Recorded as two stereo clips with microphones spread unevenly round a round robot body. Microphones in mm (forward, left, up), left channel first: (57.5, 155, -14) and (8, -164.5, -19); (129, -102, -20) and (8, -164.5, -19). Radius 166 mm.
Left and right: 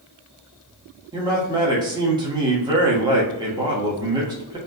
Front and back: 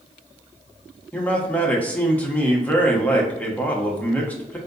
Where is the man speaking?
40° right, 1.1 m.